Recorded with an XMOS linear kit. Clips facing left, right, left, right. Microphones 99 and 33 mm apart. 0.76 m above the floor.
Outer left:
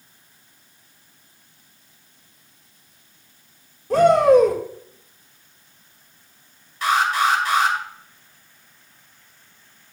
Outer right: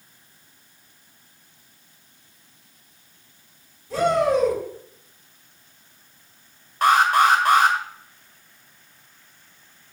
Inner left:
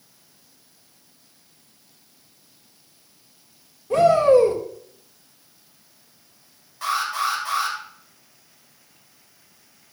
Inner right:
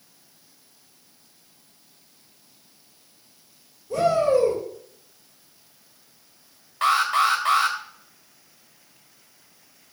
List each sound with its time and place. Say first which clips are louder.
3.9 s a shout: outer left 7 dB, inner left 5 dB; 65° left (ahead or behind), 3.5 m
6.8 s an alarm: outer right 3 dB, inner right 4 dB; 55° right (ahead or behind), 2 m